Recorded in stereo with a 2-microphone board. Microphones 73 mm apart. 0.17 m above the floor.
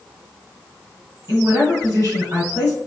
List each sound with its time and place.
1.3 s a woman speaking: 35° right (ahead or behind), 1.5 m